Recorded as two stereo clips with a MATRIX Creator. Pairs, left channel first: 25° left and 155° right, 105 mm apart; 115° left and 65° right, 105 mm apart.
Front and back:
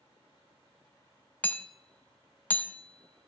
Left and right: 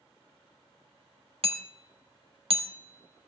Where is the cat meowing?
No cat meowing in this recording.